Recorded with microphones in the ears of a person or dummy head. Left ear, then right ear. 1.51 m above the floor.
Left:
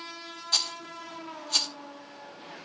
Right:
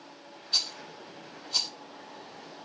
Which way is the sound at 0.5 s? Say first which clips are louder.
Left 1 dB; 65° left (ahead or behind).